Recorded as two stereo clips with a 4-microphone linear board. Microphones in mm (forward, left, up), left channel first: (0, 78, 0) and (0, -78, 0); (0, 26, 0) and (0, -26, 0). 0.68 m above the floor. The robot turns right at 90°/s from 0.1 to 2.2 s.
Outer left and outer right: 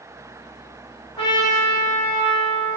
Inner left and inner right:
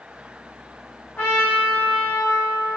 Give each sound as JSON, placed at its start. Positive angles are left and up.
{"t": 1.2, "sound": "a trumpet", "azimuth_deg": 40, "distance_m": 1.1}